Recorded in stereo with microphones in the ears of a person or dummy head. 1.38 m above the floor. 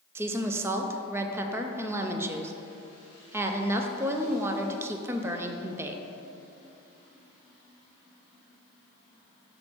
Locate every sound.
0.1 s a woman speaking: 10° right (ahead or behind), 0.5 m